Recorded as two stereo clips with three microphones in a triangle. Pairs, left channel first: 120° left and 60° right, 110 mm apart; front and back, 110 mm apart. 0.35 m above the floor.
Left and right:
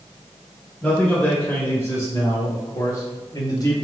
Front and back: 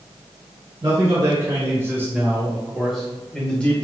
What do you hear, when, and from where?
0.8 s a man speaking: 175° right, 1.2 m; by 3.8 s 75° left, 1.5 m